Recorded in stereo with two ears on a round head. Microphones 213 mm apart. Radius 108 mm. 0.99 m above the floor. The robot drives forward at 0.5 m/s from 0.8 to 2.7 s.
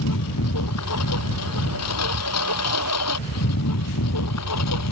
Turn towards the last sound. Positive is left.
turn(degrees=85)